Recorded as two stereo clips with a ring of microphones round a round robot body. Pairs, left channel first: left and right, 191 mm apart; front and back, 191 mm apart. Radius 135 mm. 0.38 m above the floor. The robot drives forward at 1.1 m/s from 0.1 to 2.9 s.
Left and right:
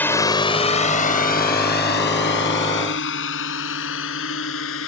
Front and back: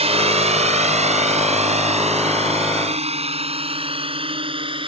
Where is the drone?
165° left; by 4.9 s 120° left.